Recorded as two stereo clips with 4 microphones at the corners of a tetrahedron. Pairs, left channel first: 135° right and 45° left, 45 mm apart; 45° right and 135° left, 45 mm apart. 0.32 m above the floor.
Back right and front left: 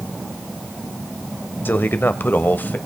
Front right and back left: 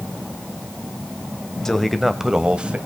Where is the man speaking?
120° right, 1.2 m; by 2.8 s 170° right, 1.3 m.